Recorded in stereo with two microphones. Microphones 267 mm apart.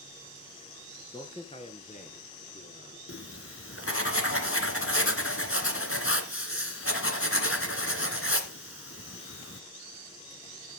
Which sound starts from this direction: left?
Writing, at 3.1 s.